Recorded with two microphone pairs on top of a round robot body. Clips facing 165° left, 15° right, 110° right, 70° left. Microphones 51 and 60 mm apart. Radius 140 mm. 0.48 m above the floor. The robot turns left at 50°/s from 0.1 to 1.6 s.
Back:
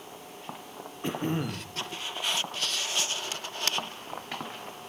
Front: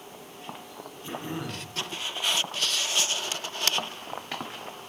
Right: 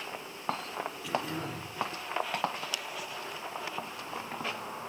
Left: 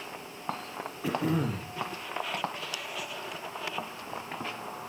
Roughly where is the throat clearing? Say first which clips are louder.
Back 5 dB, left 7 dB; behind left.